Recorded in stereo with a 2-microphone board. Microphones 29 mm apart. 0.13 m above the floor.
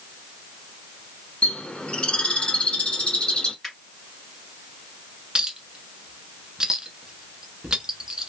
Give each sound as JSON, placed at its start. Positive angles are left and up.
{"t": 1.4, "sound": "a bird", "side_deg": 35, "distance_m": 0.9}
{"t": 3.6, "sound": "a finger snap", "side_deg": 10, "distance_m": 2.0}
{"t": 5.3, "sound": "a clink", "side_deg": -25, "distance_m": 0.8}